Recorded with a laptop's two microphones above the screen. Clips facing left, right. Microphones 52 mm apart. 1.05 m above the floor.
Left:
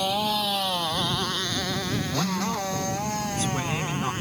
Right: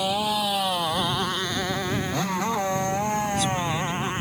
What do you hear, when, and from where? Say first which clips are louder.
0.0 s a motorcycle: right 1 dB; 10° right (ahead or behind); by 4.2 s 25° right (ahead or behind)
2.1 s a man speaking: right 2 dB; 40° left (ahead or behind)